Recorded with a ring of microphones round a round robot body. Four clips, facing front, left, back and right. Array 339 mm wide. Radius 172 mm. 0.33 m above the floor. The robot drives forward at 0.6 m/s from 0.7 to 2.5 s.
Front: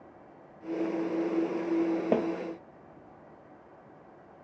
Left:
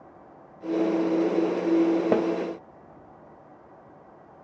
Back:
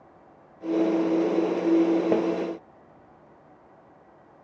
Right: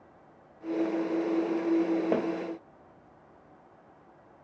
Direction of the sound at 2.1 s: 85° left.